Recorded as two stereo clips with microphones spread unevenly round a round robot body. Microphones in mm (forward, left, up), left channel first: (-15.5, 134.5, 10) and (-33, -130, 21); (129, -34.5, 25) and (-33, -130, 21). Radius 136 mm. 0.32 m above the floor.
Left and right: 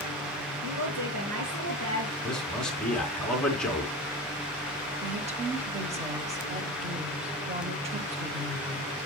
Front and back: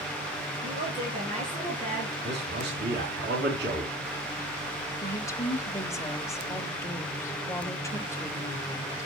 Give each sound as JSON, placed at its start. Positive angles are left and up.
{"t": 0.6, "sound": "a woman speaking", "azimuth_deg": -110, "distance_m": 3.5}
{"t": 2.2, "sound": "a man speaking", "azimuth_deg": 175, "distance_m": 4.0}
{"t": 5.0, "sound": "a woman speaking", "azimuth_deg": -40, "distance_m": 1.3}